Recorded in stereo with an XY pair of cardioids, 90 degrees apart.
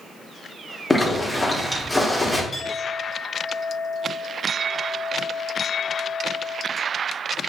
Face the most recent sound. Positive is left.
turn(degrees=40)